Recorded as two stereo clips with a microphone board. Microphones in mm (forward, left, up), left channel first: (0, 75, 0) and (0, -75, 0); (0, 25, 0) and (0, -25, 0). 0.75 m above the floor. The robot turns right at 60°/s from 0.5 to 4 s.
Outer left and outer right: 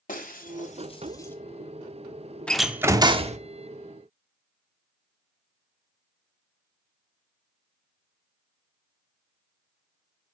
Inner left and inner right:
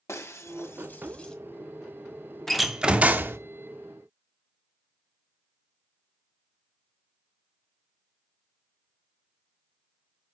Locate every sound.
0.1 s breaking glass: 60° left (ahead or behind), 1.5 m; by 1.4 s 10° left (ahead or behind), 1.5 m
2.5 s a door slam: 175° left, 0.9 m; by 3.4 s 130° right, 0.9 m